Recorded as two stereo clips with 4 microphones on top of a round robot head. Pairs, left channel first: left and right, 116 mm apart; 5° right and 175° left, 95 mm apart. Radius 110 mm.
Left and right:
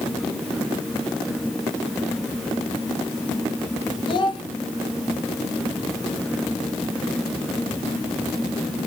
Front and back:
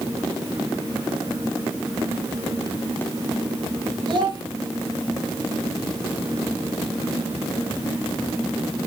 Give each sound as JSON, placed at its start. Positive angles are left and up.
{"t": 4.1, "sound": "a child speaking", "azimuth_deg": 140, "distance_m": 3.5}